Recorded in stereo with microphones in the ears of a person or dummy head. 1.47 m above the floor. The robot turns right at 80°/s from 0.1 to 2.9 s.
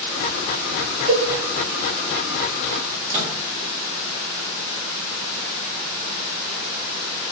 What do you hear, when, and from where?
1.1 s a cowbell: 30° right (ahead or behind), 1.2 m; by 1.3 s 45° right (ahead or behind), 1.2 m
2.8 s a microwave: 40° right (ahead or behind), 1.9 m; by 3.3 s 35° right (ahead or behind), 1.9 m